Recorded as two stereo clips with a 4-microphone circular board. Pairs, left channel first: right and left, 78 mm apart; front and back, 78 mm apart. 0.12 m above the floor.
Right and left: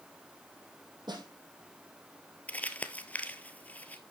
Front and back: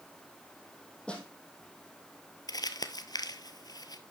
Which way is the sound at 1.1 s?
75° left.